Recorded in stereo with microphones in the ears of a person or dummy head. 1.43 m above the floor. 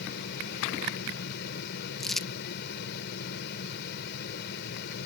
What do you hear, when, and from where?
0.0 s a fan: 60° left (ahead or behind)
2.0 s crumpling: 5° left (ahead or behind)